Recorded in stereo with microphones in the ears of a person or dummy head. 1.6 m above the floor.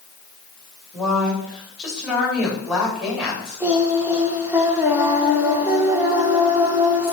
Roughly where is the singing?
Centre.